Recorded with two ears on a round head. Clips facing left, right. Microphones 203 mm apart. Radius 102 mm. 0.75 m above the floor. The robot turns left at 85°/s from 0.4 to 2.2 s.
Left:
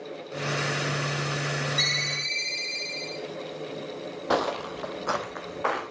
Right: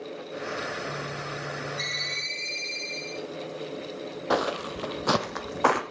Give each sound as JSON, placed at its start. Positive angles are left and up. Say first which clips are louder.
{"t": 1.8, "sound": "a ringtone", "louder": "left 3 dB", "azimuth_deg": 45, "distance_m": 5.0}
{"t": 4.3, "sound": "footsteps", "louder": "even", "side_deg": 0, "distance_m": 1.1}